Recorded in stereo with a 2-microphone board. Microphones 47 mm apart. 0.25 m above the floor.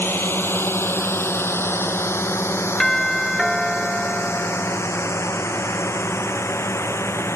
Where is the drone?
55° left (ahead or behind); by 7.4 s 70° left (ahead or behind).